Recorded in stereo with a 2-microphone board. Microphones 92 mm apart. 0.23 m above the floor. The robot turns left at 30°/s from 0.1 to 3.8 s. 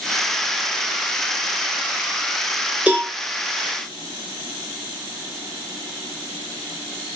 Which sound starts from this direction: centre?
A cowbell, at 2.9 s.